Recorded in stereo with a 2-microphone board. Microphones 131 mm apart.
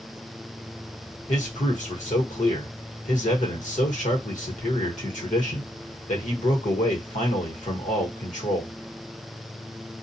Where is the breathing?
I don't hear breathing.